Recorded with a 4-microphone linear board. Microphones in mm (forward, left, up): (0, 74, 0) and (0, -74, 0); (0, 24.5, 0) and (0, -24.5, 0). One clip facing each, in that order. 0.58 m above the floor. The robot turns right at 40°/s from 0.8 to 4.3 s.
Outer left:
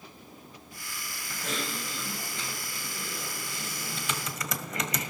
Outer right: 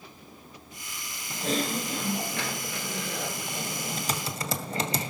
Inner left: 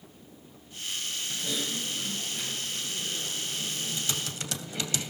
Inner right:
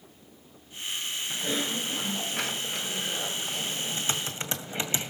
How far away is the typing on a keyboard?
About 2 m.